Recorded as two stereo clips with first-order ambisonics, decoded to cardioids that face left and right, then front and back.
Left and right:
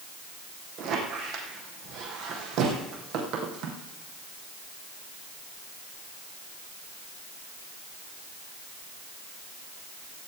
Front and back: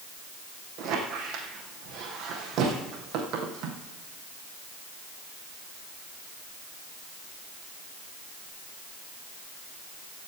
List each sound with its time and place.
0.8 s a squeak: 130° right, 2.5 m